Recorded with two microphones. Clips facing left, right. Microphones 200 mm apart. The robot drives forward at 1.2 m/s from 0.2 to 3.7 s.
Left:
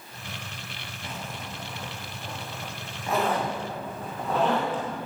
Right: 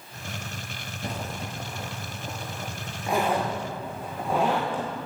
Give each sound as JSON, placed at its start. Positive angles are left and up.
{"t": 1.0, "sound": "a zipper", "side_deg": -40, "distance_m": 1.3}